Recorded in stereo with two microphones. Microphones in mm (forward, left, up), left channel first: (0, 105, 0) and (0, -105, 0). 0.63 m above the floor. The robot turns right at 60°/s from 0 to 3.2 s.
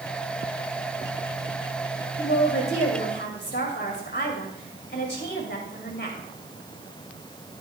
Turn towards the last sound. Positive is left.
turn(degrees=120)